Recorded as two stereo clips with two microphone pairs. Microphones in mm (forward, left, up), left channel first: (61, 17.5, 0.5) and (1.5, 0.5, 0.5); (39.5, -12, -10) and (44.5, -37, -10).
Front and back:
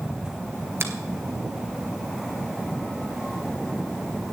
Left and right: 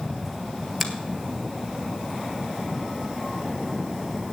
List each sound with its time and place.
0.8 s a finger snap: 175° left, 1.3 m